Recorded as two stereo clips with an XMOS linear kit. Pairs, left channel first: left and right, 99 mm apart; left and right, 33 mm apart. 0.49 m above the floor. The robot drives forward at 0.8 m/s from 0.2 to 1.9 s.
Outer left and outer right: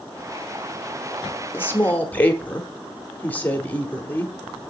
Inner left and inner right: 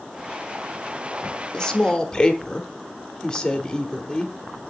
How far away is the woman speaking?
About 0.7 m.